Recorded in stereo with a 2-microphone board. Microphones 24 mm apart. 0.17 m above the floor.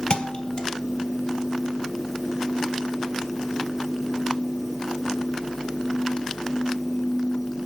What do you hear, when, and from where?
0.1 s a thud: 45° left (ahead or behind), 2.5 m